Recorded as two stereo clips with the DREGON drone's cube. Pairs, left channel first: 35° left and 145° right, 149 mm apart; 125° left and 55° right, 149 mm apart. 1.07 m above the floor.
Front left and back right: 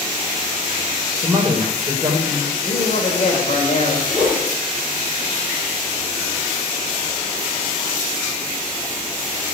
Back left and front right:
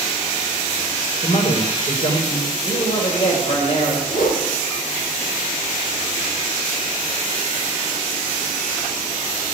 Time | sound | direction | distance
1.2 | a man speaking | 150° left | 3.5 m
2.6 | a man speaking | 75° left | 5 m
4.1 | a whoosh | 125° left | 6.5 m